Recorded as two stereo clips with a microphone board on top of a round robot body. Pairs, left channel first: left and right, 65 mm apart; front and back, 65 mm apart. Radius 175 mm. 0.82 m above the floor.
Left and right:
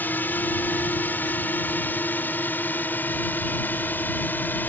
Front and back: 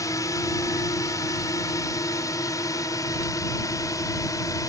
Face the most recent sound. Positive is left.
turn(degrees=30)